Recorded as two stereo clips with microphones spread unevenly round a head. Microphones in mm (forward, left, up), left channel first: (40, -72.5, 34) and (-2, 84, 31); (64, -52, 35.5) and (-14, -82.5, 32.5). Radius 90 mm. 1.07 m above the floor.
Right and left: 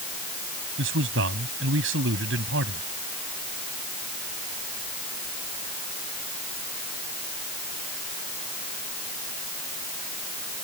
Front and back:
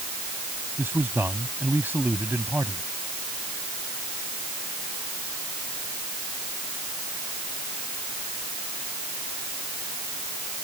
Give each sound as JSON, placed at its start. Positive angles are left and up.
{"t": 0.8, "sound": "a man speaking", "azimuth_deg": 125}